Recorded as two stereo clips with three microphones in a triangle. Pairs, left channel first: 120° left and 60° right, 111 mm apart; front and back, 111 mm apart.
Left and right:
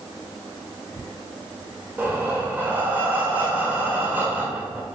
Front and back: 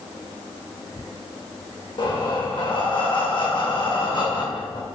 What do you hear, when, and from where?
2.0 s breathing: 5° left, 0.8 m